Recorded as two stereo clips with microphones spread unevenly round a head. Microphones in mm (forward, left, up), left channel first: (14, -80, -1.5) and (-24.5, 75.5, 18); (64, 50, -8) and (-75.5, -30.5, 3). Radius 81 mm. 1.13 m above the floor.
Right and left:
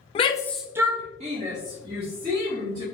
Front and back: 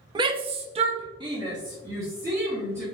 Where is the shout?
90° right, 0.6 m; by 2.8 s 135° left, 2 m.